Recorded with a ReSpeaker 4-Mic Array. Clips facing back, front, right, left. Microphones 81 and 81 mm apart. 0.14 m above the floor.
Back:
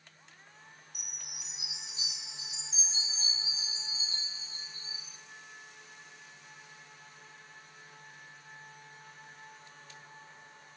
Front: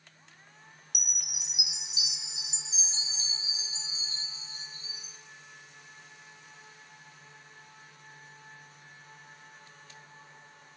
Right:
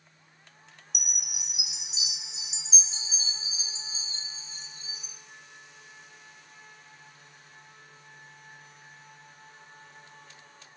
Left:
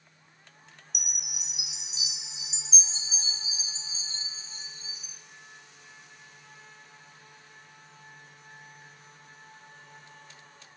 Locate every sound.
0.9 s a chime: 5° right, 5 m